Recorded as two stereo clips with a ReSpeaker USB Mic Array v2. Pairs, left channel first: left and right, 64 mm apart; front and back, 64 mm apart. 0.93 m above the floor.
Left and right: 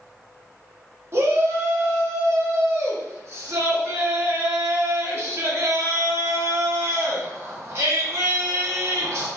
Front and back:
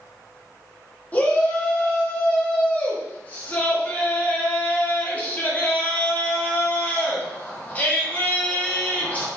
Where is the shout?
60° right, 1.3 m.